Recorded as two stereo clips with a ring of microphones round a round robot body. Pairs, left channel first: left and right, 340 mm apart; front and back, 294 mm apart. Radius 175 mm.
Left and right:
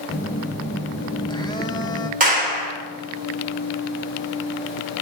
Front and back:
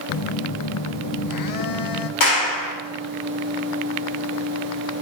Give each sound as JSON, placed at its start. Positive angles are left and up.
{"t": 0.1, "sound": "a phone buzzing", "azimuth_deg": 10, "distance_m": 0.7}
{"t": 2.2, "sound": "a clap", "azimuth_deg": -25, "distance_m": 3.0}